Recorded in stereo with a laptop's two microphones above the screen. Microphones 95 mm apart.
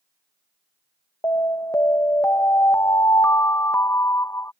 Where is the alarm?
35° left (ahead or behind).